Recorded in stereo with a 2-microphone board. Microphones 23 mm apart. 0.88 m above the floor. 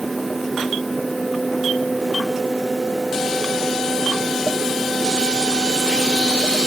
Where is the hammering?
I don't hear hammering.